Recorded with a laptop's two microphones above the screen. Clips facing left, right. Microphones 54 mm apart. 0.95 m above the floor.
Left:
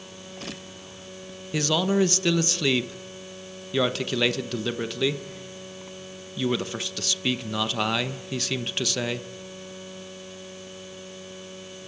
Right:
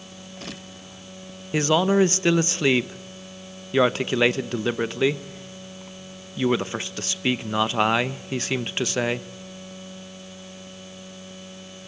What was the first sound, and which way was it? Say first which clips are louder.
A man speaking: right 4 dB; 30° right (ahead or behind).